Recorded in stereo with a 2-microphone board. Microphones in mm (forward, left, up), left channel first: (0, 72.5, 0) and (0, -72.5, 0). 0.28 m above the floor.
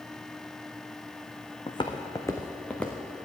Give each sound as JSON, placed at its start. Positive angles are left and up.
{"t": 1.7, "sound": "footsteps", "side_deg": 40, "distance_m": 1.1}